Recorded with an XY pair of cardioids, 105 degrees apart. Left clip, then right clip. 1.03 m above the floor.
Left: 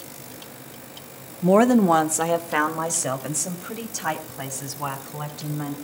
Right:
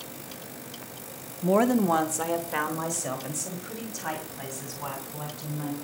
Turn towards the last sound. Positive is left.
turn(degrees=40)